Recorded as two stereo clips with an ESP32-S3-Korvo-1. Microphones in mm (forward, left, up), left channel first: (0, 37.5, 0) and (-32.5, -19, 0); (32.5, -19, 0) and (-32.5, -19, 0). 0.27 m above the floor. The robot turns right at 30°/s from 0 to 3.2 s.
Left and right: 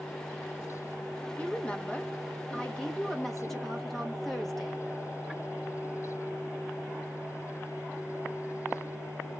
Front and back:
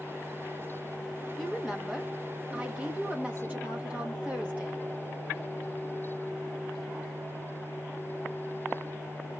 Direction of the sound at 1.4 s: 85° left.